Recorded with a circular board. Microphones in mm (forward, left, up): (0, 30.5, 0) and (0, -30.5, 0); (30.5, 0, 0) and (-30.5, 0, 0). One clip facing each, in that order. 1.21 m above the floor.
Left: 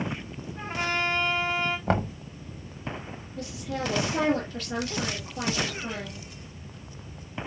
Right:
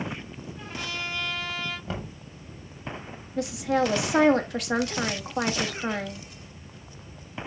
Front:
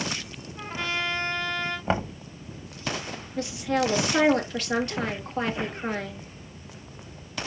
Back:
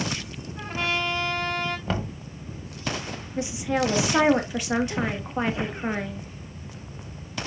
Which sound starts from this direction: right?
A woman speaking, at 3.4 s.